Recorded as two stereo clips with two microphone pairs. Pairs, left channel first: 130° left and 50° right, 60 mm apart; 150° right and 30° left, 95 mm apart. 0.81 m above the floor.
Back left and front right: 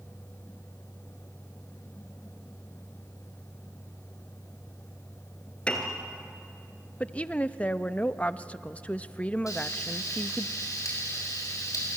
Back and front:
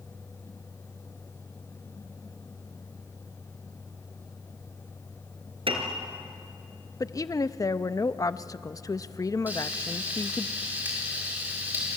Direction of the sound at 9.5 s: 105° left.